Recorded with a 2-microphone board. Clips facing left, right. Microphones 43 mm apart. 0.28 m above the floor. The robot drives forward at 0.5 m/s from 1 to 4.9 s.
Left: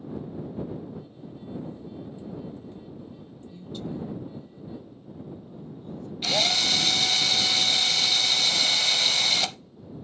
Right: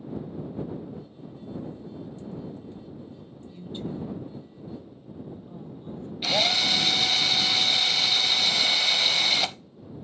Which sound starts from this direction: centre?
A drill, at 6.2 s.